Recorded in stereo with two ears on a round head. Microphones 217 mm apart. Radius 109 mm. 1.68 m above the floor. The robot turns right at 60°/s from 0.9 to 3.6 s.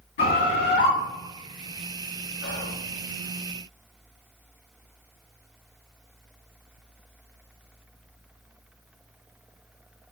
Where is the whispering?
50° left (ahead or behind), 0.5 m; by 2.8 s 35° left (ahead or behind), 0.5 m.